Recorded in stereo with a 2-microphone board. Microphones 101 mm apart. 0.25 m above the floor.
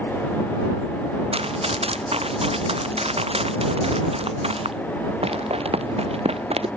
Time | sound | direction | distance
1.3 | running footsteps | 75° right (ahead or behind) | ?